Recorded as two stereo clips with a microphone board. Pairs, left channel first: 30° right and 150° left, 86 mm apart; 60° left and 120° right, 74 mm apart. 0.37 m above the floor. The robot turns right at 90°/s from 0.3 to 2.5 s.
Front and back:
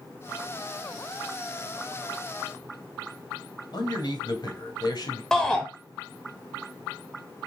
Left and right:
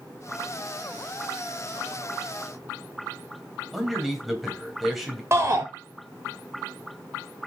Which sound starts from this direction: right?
A shout, at 5.3 s.